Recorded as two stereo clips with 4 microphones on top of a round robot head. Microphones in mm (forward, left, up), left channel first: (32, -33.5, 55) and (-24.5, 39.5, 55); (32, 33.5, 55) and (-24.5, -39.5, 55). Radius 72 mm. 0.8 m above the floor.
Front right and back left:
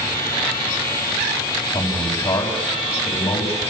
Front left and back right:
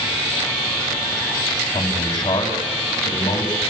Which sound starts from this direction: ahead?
A man speaking, at 1.7 s.